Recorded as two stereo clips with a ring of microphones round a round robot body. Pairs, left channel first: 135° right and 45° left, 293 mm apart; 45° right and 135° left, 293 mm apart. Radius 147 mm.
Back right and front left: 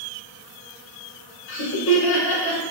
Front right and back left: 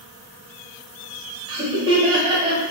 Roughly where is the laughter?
Behind right.